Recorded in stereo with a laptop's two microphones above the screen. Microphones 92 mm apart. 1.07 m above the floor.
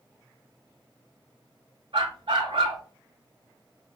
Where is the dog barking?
65° right (ahead or behind), 3 m.